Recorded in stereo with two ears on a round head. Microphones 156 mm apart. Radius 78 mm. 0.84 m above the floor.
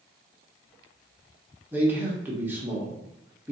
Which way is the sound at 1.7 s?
10° right (ahead or behind).